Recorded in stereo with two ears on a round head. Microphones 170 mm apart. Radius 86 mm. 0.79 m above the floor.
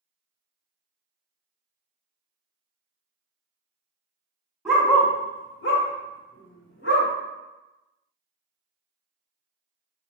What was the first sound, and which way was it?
A dog barking, 5° right (ahead or behind).